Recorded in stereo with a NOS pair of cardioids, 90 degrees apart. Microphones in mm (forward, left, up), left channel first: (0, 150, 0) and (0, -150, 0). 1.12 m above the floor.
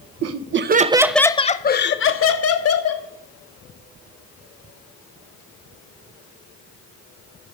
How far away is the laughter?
About 0.8 m.